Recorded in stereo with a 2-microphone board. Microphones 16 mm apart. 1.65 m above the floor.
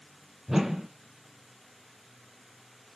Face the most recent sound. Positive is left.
turn(degrees=-20)  # may be behind; listen again after turning